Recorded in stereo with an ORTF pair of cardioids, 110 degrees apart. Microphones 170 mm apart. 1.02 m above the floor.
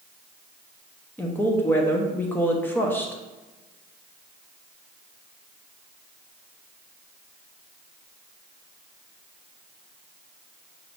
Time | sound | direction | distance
1.2 | a woman speaking | 10° left | 0.8 m